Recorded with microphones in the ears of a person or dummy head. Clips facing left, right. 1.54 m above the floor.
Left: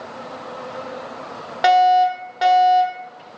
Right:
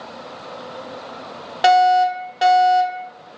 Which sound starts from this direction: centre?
A fire alarm, at 1.6 s.